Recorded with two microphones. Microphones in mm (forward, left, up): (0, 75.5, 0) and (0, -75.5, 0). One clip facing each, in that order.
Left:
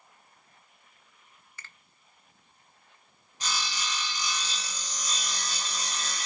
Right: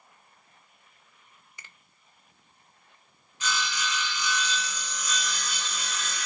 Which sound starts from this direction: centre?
A finger snap, at 1.6 s.